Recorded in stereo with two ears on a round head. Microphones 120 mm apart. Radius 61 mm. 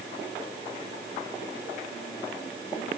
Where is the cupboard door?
No cupboard door in this recording.